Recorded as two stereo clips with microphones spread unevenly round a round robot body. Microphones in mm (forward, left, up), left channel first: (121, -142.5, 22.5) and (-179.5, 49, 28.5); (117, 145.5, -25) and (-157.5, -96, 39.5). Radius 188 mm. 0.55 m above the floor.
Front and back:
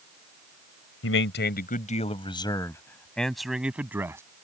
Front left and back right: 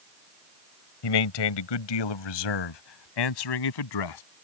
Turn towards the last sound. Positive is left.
turn(degrees=65)